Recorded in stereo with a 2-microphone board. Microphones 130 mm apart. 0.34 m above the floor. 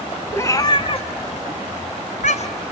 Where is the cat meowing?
20° left (ahead or behind), 1.1 m; by 2.6 s 60° left (ahead or behind), 1.4 m.